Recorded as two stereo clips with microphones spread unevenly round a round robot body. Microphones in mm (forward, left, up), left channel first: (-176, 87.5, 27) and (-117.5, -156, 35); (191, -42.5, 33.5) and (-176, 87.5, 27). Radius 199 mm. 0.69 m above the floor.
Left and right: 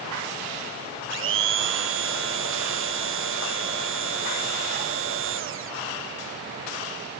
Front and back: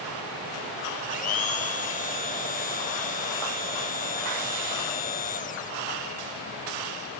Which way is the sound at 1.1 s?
85° right.